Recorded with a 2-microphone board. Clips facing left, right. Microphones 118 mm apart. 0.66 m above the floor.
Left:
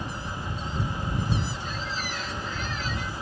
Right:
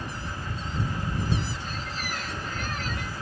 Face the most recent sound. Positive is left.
turn(degrees=-50)  # may be behind; listen again after turning